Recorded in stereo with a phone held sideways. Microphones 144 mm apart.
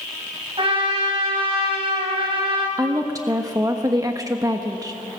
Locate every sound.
0.6 s a trumpet: 40° right (ahead or behind), 5 m
2.8 s a woman speaking: 25° right (ahead or behind), 1.2 m